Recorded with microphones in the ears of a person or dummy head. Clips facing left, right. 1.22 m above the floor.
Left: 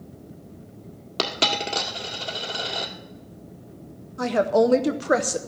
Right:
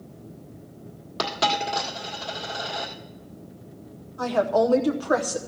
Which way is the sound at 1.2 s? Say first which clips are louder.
Right 1 dB; 35° left (ahead or behind).